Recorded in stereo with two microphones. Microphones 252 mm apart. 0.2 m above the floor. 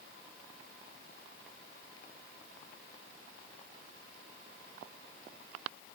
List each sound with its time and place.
Only background noise.